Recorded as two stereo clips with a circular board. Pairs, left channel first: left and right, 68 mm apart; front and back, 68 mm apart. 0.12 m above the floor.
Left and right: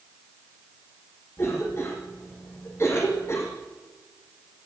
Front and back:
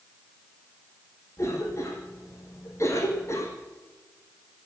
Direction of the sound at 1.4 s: 40° left.